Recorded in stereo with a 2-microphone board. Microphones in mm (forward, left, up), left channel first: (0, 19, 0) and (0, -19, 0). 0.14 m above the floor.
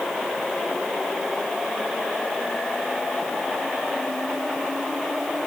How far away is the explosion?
I don't hear an explosion.